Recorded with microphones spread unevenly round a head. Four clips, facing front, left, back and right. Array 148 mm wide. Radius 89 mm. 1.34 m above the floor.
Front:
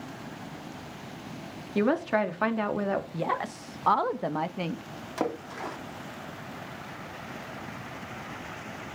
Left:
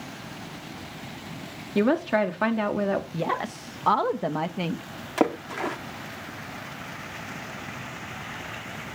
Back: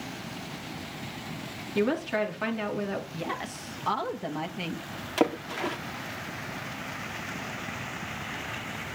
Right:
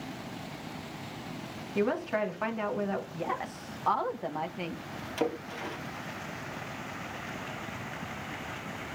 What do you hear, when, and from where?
1.8 s a woman speaking: 70° left, 3.5 m
3.1 s a woman speaking: 70° left, 1.9 m
5.2 s a splash: 110° left, 3.5 m